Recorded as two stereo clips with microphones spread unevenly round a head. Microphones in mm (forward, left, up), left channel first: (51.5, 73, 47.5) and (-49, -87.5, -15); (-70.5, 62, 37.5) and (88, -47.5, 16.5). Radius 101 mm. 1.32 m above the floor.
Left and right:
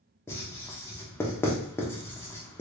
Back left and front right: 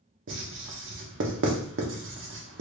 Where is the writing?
25° right, 0.8 m.